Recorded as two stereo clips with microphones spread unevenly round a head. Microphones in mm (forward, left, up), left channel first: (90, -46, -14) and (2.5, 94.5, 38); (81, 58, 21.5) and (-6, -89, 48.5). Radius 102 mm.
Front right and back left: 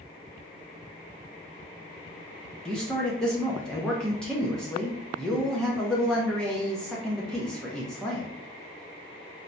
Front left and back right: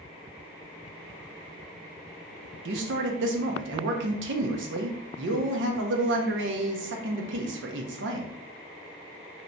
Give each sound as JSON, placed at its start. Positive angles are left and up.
{"t": 2.6, "sound": "a man speaking", "azimuth_deg": -140, "distance_m": 0.7}